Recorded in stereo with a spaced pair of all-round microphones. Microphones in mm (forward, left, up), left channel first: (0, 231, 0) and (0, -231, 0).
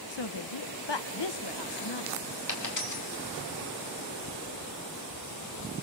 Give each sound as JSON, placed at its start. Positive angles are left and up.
{"t": 0.1, "sound": "a woman speaking", "side_deg": 65, "distance_m": 1.1}
{"t": 2.5, "sound": "a dropped coin", "side_deg": 40, "distance_m": 3.5}